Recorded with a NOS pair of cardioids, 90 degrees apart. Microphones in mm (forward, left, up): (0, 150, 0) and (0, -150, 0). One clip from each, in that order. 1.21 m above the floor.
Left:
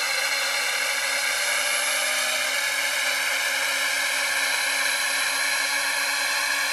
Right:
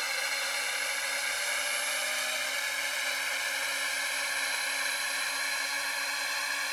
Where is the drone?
50° left; by 6.7 s 55° left.